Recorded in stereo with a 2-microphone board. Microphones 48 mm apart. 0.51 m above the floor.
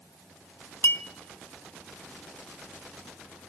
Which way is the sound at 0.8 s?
50° left (ahead or behind).